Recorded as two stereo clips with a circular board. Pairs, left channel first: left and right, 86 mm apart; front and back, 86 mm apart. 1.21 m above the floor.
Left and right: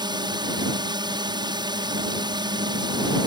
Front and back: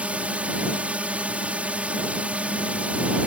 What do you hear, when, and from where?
0.0 s a drone: 105° right